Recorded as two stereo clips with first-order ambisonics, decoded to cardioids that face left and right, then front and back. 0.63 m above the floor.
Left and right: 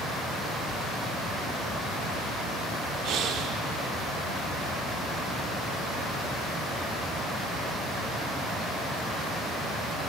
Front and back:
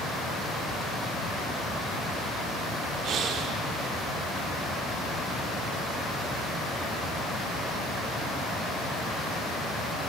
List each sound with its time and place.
3.0 s breathing: 130° right, 1.0 m